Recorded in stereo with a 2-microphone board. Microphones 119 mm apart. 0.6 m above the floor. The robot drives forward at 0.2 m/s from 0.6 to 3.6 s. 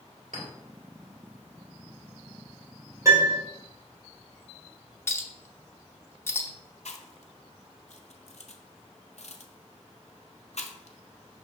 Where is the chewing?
65° left (ahead or behind), 0.5 m.